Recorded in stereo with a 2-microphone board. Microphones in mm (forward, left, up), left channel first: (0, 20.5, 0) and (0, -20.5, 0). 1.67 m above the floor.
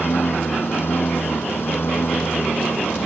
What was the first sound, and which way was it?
A lawn mower, 70° left (ahead or behind).